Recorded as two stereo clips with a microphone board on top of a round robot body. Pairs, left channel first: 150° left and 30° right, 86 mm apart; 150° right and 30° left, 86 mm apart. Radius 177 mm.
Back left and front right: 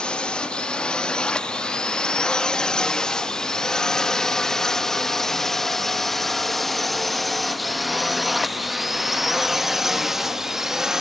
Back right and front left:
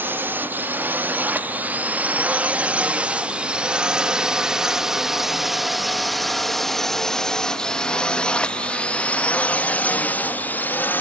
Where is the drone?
80° left; by 11.0 s 110° right.